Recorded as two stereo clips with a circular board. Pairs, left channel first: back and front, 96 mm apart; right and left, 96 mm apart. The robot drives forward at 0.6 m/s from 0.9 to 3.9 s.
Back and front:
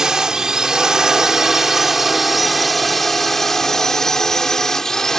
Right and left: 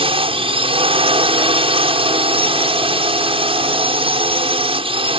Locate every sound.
0.0 s a drone: 85° left; by 5.2 s 95° left